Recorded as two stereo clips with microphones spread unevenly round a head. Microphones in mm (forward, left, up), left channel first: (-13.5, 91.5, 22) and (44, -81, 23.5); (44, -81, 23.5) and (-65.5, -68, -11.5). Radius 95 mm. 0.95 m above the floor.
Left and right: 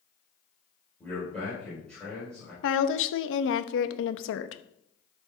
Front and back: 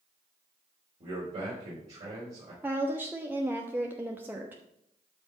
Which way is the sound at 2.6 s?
100° left.